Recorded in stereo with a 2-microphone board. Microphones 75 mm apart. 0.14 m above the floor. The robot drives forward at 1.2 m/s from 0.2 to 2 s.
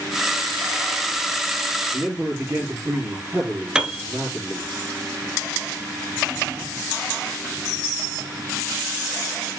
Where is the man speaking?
25° right (ahead or behind), 3.5 m.